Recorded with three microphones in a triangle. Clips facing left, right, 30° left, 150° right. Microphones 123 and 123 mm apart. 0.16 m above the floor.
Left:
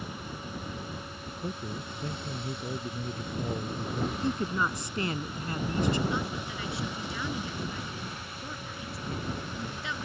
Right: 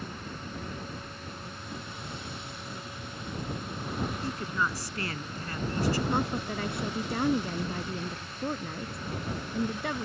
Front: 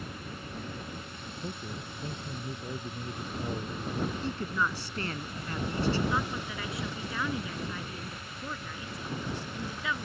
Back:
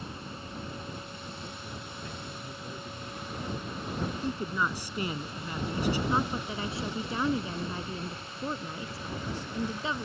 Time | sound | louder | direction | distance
1.4 | a man speaking | left 5 dB, front 3 dB | 90° left | ?
4.2 | a woman speaking | left 3 dB, back 1 dB | 145° left | ?
6.1 | a woman speaking | right 3 dB, back 3 dB | 100° right | ?